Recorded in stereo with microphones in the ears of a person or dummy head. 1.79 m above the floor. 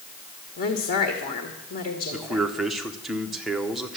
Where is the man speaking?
Centre (ahead or behind), 1.0 m.